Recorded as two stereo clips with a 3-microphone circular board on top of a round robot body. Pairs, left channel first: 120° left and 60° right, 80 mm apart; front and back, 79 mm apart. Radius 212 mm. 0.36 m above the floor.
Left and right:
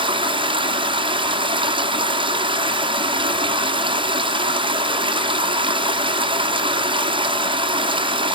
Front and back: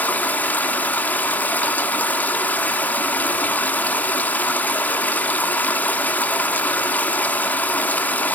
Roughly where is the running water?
Right.